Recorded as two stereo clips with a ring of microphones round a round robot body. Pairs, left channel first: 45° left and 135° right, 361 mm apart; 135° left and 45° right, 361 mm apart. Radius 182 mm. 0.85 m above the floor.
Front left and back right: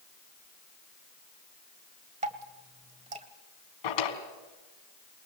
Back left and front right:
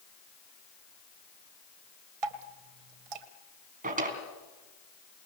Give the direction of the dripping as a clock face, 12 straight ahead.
2 o'clock.